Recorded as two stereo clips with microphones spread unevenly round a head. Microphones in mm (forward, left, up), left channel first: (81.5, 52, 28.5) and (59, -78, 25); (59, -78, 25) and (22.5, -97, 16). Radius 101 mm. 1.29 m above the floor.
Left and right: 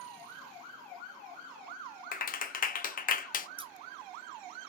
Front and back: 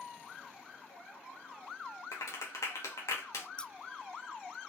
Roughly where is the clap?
Ahead left.